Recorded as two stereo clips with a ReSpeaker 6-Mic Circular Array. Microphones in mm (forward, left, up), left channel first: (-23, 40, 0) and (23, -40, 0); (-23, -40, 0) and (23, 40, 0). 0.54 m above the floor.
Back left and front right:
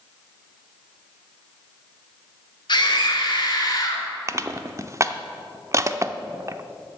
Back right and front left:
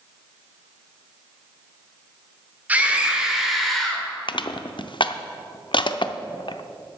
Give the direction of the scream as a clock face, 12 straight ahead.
8 o'clock.